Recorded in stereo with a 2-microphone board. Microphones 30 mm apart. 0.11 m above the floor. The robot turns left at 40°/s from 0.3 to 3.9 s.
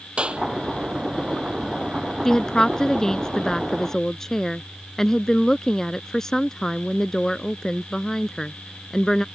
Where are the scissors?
I don't hear scissors.